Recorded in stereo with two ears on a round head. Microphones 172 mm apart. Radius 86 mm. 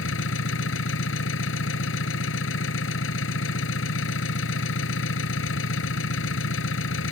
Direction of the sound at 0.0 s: 75° left (ahead or behind).